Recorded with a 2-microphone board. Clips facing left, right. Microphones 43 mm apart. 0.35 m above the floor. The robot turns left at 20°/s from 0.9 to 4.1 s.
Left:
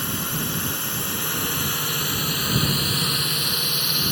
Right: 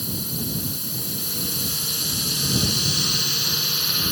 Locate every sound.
0.0 s a drone: 60° left; by 4.1 s straight ahead